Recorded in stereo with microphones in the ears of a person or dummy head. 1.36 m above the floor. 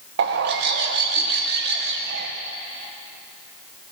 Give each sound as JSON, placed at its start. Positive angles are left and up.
{"t": 0.2, "sound": "a bird", "side_deg": -55, "distance_m": 1.0}